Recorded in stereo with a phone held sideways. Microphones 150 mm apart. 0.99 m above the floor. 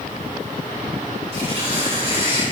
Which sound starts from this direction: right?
Tearing paper, at 1.3 s.